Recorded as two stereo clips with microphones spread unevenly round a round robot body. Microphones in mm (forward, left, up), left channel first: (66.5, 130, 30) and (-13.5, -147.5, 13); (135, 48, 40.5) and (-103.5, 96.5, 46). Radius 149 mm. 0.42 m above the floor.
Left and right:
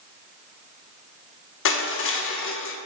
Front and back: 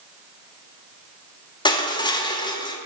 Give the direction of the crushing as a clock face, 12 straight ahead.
10 o'clock.